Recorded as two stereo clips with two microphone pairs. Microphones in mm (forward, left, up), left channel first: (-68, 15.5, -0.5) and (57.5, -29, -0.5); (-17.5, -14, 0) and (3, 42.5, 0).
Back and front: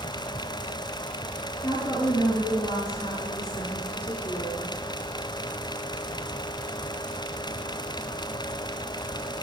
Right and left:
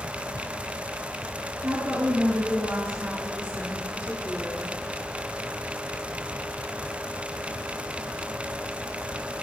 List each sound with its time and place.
1.6 s a woman speaking: 105° left, 3 m; by 4.7 s 80° left, 1.4 m